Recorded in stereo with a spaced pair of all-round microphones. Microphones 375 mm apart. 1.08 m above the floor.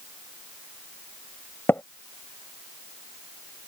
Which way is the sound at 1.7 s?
5° left (ahead or behind).